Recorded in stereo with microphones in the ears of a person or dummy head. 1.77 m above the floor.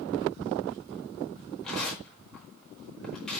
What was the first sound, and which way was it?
Tearing paper, 5° left (ahead or behind).